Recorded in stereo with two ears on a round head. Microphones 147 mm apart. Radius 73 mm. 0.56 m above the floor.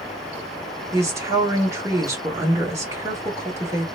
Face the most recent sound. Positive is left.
turn(degrees=-20)  # may be behind; listen again after turning